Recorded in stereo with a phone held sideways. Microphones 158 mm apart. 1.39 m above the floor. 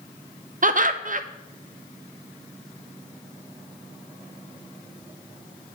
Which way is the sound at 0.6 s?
55° right (ahead or behind).